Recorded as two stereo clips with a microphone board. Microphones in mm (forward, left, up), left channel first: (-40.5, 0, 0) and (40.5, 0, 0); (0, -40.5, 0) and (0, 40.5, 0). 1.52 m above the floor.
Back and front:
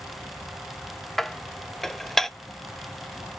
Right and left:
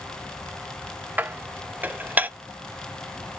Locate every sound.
1.2 s dishes clattering: 100° left, 0.5 m